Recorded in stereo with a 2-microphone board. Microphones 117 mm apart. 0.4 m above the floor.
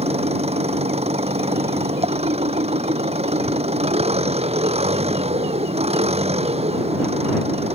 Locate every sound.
0.0 s an engine running: 60° right (ahead or behind)